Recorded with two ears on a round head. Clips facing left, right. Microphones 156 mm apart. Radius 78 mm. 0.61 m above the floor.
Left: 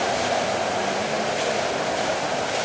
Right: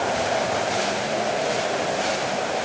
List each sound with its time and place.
Only background noise.